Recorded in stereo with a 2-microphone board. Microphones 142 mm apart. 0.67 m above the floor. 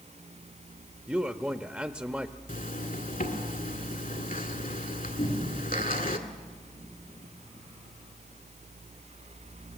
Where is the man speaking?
10° right (ahead or behind), 0.7 m.